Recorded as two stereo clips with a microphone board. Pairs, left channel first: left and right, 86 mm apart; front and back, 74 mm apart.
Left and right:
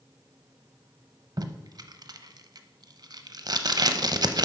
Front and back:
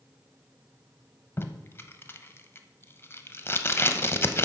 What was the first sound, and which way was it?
Tape being pulled, 55° right.